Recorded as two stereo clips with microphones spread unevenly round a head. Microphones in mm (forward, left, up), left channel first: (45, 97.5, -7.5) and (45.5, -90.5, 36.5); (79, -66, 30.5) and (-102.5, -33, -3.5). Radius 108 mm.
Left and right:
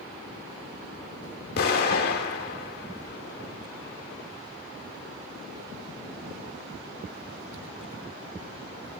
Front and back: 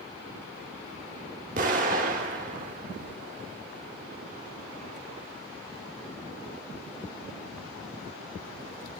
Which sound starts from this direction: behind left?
An explosion, at 1.6 s.